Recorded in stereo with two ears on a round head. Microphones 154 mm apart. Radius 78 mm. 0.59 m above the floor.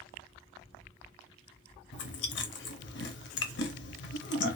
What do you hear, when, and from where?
1.9 s chewing: 70° left (ahead or behind), 0.6 m